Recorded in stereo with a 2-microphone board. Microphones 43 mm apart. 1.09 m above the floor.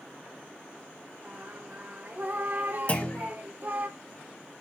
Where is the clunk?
35° left (ahead or behind), 1.3 m.